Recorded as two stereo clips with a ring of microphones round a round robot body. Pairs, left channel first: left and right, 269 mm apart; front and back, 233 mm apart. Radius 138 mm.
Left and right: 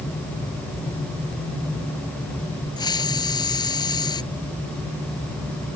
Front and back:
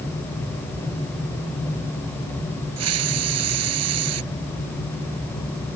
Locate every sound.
2.8 s a hiss: 165° left